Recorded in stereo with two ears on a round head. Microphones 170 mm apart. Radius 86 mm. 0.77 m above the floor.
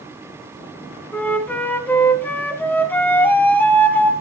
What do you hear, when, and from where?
1.1 s a flute: 10° left (ahead or behind), 1.0 m